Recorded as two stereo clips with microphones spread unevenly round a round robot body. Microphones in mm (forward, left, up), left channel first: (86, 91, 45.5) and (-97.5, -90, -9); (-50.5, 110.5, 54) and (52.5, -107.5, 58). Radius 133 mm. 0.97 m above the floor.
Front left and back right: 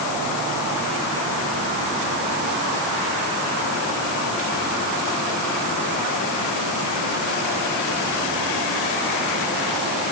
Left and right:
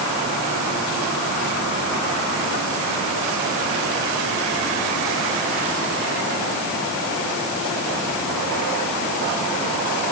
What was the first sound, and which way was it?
Only background noise.